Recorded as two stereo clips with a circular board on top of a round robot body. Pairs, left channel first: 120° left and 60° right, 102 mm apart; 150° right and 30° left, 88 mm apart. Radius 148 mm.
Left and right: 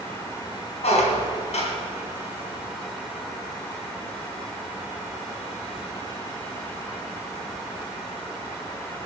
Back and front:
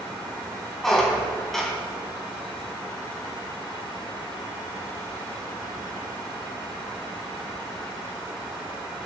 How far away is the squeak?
About 3 m.